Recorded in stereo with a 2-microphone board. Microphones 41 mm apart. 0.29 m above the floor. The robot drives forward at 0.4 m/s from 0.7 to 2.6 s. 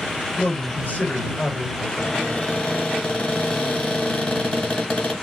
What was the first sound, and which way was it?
A man speaking, 45° left (ahead or behind).